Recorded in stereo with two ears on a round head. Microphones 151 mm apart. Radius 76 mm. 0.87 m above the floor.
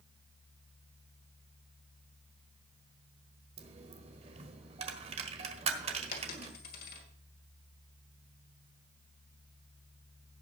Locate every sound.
3.6 s a dropped coin: 35° right (ahead or behind), 1.4 m
6.1 s a dropped coin: 60° left (ahead or behind), 2 m